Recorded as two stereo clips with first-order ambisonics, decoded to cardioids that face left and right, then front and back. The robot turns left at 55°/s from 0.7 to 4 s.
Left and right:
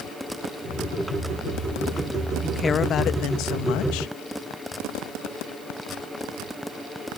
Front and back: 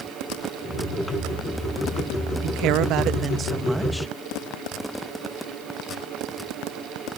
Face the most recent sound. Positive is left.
turn(degrees=85)